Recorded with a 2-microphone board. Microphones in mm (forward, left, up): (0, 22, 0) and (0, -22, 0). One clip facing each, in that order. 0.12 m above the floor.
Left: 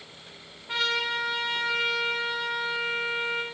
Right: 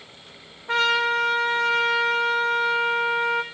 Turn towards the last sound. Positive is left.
turn(degrees=-75)  # may be behind; listen again after turning